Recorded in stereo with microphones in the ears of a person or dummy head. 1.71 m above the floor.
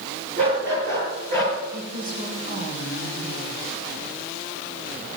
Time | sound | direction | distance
0.4 | a dog barking | 65° right (ahead or behind) | 7 m
1.7 | a woman speaking | 45° right (ahead or behind) | 2.5 m